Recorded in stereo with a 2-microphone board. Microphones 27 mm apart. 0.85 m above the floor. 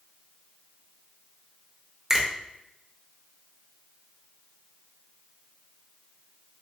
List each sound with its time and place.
2.1 s a finger snap: 20° right (ahead or behind), 0.8 m